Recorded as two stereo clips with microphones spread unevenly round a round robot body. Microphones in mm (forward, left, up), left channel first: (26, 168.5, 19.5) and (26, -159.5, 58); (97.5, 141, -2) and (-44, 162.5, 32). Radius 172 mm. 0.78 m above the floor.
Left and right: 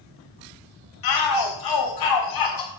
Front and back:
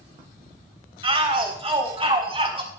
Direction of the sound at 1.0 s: 115° left.